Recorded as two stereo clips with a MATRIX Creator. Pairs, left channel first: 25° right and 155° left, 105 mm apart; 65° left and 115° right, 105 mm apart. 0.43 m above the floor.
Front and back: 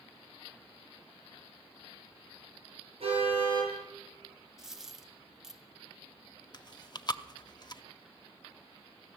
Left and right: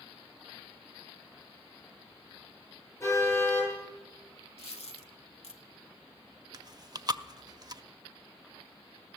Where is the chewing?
65° right, 0.5 m.